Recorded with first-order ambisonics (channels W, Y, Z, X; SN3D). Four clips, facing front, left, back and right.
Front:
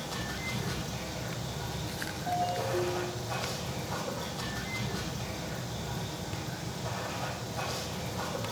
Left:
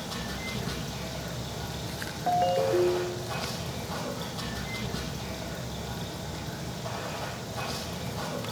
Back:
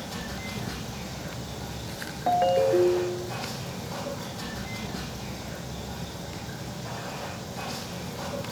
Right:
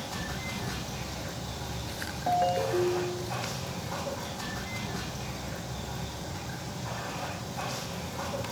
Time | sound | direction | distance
0.0 | running water | 90° left | 7 m
2.3 | a ringtone | 170° left | 0.6 m